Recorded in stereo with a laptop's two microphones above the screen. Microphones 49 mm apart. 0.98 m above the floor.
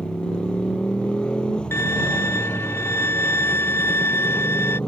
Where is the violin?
60° left (ahead or behind).